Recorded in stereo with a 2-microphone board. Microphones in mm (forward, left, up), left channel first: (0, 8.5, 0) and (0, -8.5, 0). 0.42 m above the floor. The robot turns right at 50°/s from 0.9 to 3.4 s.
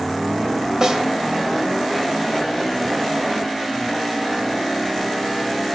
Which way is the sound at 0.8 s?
35° right (ahead or behind).